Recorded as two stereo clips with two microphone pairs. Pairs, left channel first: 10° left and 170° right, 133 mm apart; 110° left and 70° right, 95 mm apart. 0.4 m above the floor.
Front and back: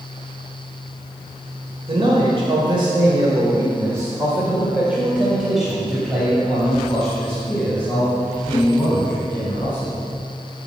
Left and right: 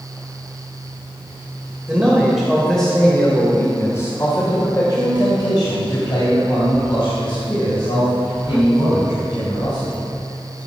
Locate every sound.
1.9 s a man speaking: 150° right, 2 m; by 10.0 s 85° left, 5 m